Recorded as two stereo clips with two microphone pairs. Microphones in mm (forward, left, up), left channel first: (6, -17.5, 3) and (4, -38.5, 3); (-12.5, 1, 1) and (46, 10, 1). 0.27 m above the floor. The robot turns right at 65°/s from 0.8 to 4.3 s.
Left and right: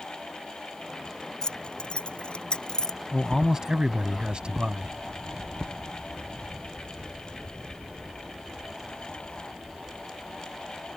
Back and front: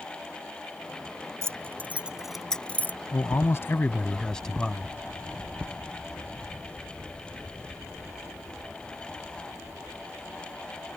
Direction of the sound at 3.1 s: 175° right.